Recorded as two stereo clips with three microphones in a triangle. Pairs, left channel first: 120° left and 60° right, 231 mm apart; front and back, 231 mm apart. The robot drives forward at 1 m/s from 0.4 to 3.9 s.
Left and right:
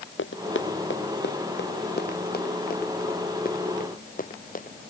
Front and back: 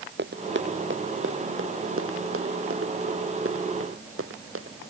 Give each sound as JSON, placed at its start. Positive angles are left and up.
{"t": 0.2, "sound": "running footsteps", "azimuth_deg": 145}